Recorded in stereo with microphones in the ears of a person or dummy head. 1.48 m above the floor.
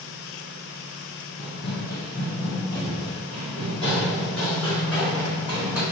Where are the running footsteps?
30° left (ahead or behind), 1.8 m; by 5.8 s 10° right (ahead or behind), 3 m.